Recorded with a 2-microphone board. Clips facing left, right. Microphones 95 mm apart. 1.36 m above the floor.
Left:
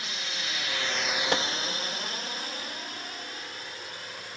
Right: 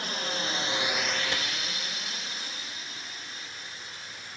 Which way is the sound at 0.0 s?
45° right (ahead or behind).